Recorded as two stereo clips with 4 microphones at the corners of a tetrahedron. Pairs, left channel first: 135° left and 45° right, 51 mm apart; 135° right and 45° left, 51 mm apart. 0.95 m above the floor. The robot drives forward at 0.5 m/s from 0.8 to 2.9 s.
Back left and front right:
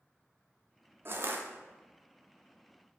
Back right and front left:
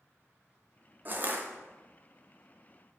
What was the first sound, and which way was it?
Crushing, 5° right.